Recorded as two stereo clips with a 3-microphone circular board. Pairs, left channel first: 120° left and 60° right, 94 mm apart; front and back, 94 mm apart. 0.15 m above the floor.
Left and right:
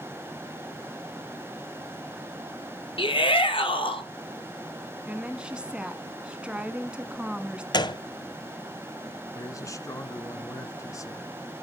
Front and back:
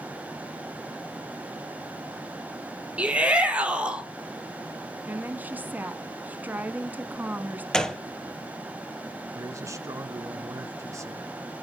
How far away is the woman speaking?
About 1.3 m.